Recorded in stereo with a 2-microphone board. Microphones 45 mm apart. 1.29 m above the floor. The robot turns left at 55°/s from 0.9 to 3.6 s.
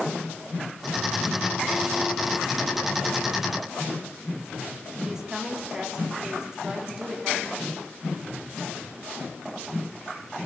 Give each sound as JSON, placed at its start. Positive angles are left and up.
{"t": 5.0, "sound": "a woman speaking", "side_deg": -10, "distance_m": 4.0}